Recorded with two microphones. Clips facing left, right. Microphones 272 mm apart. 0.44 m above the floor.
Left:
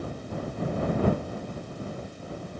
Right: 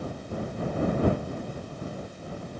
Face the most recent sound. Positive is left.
No sound to turn to.